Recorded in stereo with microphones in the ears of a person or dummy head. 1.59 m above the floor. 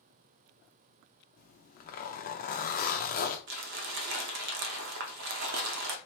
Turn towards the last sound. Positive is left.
turn(degrees=-70)  # may be behind; listen again after turning